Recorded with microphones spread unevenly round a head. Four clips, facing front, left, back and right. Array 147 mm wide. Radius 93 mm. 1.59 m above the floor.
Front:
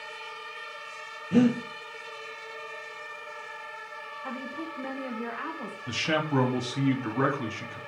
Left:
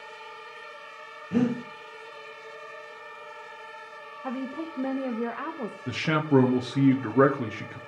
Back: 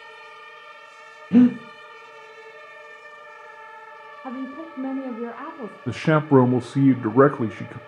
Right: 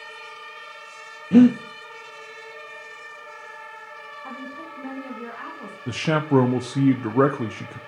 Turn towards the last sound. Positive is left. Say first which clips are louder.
# right 3 dB, back 9 dB
turn(degrees=180)